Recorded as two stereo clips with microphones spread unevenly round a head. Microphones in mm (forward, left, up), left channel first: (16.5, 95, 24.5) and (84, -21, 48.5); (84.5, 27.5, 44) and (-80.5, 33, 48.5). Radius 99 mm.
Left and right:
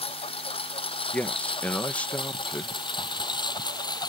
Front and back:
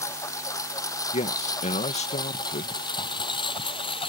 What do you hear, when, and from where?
0.0 s a lawn mower: 70° left; by 4.1 s 60° left
1.1 s a man speaking: 45° left